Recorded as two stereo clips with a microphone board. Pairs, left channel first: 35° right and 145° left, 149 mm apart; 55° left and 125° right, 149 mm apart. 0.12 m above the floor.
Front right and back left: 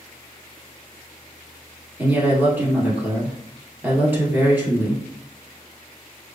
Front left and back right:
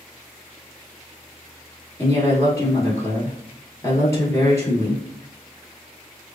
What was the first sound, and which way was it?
A woman speaking, 90° left.